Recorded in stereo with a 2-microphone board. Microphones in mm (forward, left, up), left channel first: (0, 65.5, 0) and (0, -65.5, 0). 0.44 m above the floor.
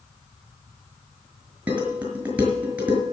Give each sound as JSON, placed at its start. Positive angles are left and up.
{"t": 1.7, "sound": "dishes clattering", "side_deg": -15, "distance_m": 5.5}